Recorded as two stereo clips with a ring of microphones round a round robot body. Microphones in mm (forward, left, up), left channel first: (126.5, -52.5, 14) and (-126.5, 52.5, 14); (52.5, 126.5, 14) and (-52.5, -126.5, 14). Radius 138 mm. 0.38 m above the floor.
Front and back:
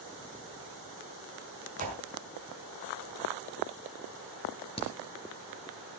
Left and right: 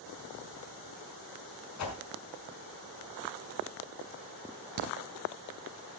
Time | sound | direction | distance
1.8 | a whoosh | 95° left | 5 m
4.8 | a crack | 95° right | 3.5 m